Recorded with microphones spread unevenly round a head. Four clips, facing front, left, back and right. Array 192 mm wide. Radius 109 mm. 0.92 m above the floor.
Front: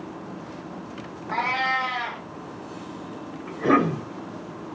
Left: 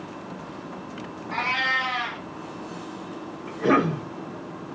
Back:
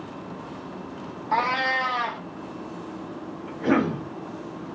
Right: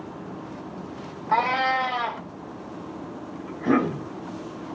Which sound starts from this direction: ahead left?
A cough, at 3.5 s.